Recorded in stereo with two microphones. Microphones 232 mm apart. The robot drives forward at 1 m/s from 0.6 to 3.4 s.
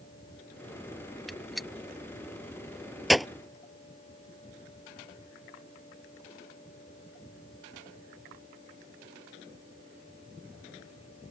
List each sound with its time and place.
1.3 s a gunshot: centre (ahead or behind)